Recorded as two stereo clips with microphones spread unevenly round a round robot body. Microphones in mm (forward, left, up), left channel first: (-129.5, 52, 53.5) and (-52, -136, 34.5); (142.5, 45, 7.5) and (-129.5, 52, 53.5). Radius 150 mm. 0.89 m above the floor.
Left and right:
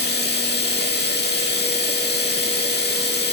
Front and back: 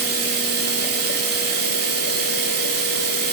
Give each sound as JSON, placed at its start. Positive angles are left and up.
{"t": 0.0, "sound": "running water", "azimuth_deg": 145, "distance_m": 6.0}